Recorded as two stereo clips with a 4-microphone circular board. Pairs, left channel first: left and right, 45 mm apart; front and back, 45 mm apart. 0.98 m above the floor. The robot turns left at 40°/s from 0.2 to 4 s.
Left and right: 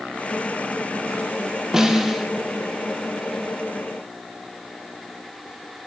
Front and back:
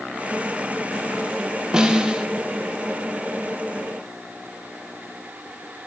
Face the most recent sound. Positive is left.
turn(degrees=120)